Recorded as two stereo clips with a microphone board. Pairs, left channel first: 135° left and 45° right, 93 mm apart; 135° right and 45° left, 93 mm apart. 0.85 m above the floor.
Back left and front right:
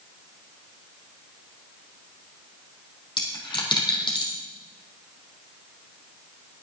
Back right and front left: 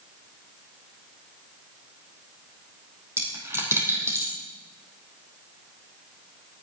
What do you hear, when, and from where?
3.2 s a dropped coin: 105° left, 3.5 m